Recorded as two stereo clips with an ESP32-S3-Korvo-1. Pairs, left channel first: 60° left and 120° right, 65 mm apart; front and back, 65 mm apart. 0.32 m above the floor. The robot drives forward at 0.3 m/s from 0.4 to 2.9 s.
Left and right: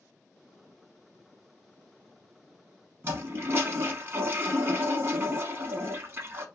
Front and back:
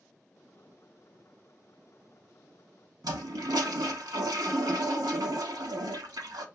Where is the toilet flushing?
170° right, 0.7 m.